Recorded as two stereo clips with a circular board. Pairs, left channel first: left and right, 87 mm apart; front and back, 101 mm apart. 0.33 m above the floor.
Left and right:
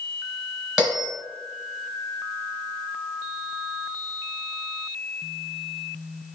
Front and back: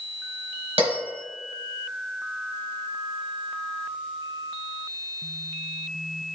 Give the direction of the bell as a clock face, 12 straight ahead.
6 o'clock.